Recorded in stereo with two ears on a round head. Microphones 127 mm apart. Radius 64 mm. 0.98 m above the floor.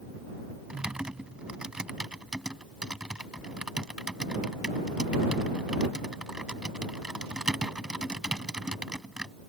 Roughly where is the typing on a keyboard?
Centre.